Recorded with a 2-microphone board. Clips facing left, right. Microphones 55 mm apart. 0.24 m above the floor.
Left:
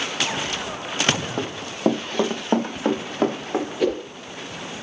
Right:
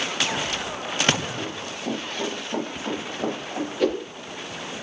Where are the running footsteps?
75° left (ahead or behind), 2.5 m; by 3.7 s 70° left (ahead or behind), 5.5 m.